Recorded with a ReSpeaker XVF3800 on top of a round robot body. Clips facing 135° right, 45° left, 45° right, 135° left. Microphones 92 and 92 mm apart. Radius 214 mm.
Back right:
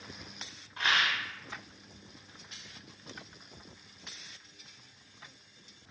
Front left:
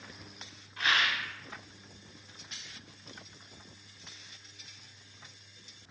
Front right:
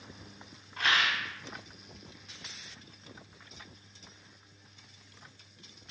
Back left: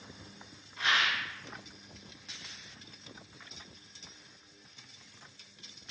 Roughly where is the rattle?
Right.